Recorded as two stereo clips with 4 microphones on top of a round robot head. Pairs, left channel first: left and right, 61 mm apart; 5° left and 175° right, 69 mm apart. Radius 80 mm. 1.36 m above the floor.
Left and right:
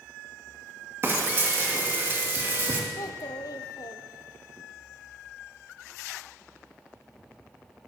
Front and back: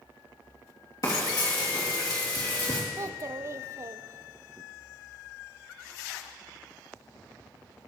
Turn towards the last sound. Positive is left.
turn(degrees=130)